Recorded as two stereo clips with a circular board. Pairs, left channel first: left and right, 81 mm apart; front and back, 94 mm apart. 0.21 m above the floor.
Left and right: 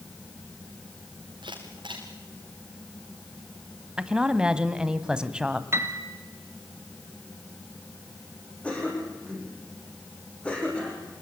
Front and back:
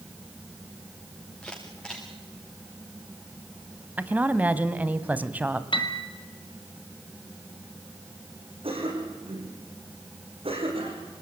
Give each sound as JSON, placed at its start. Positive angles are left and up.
{"t": 1.4, "sound": "a camera shutter", "azimuth_deg": -80, "distance_m": 6.0}
{"t": 4.0, "sound": "a woman speaking", "azimuth_deg": -150, "distance_m": 1.3}
{"t": 5.7, "sound": "a piano", "azimuth_deg": -30, "distance_m": 2.0}
{"t": 8.6, "sound": "a cough", "azimuth_deg": 165, "distance_m": 9.5}